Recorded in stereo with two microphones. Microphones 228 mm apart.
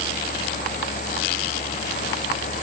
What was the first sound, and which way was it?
Only background noise.